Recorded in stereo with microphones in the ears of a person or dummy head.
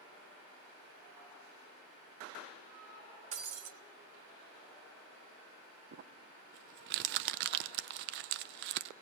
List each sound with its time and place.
3.3 s breaking glass: 50° right (ahead or behind), 1.3 m
5.9 s crumpling: 55° right (ahead or behind), 0.5 m